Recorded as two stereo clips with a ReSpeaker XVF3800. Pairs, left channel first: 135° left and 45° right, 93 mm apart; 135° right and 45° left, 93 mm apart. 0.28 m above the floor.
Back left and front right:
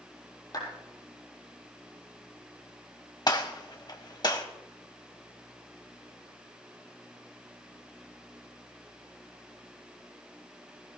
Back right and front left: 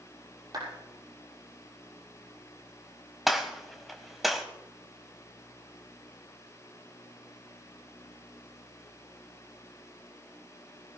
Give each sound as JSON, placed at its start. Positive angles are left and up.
{"t": 0.5, "sound": "a clap", "azimuth_deg": 90, "distance_m": 6.5}
{"t": 3.3, "sound": "a gunshot", "azimuth_deg": 135, "distance_m": 1.4}